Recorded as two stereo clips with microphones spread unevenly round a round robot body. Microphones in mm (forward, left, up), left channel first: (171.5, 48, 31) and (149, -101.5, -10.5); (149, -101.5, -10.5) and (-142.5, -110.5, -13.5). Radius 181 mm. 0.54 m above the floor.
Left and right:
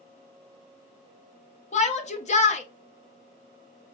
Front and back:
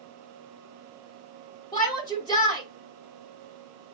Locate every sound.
1.7 s a shout: 70° left, 0.8 m